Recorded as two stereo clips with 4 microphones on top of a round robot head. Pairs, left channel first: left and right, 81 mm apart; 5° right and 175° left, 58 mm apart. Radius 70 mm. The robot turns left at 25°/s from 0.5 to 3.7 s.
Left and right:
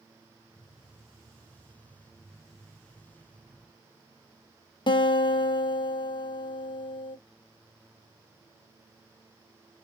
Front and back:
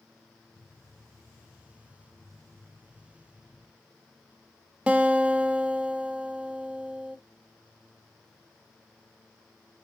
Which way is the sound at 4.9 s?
105° left.